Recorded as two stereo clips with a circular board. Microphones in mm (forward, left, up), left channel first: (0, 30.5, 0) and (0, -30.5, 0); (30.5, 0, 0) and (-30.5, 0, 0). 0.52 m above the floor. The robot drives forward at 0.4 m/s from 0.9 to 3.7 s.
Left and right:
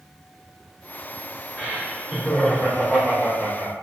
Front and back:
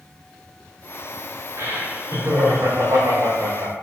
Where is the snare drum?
No snare drum in this recording.